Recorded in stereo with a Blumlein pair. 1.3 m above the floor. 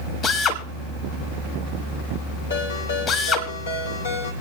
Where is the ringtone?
65° left, 2.5 m.